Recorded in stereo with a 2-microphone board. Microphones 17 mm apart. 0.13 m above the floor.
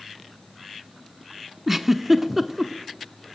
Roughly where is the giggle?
Centre.